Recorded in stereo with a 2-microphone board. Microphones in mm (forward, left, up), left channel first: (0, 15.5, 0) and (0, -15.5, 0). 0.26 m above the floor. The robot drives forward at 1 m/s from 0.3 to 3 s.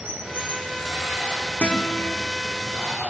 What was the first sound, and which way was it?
Running water, 60° right (ahead or behind).